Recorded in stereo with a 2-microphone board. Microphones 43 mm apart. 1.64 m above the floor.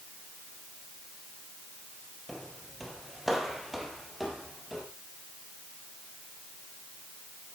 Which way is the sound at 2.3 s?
Centre (ahead or behind).